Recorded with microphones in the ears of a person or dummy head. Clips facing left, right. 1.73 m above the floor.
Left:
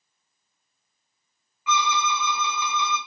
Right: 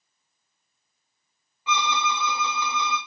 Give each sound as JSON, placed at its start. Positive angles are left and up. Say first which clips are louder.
{"t": 1.7, "sound": "a violin", "louder": "left 1 dB", "side_deg": -25, "distance_m": 0.7}